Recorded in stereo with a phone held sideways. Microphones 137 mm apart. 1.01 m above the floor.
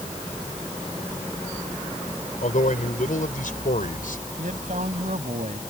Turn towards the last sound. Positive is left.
turn(degrees=-65)  # may be behind; listen again after turning